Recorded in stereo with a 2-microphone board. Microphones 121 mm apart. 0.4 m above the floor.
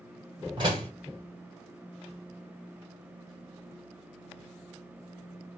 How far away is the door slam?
About 1.3 m.